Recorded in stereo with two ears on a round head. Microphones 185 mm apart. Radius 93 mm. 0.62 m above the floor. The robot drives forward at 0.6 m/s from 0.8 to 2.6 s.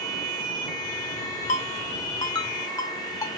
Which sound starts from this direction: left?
A ringtone, at 1.5 s.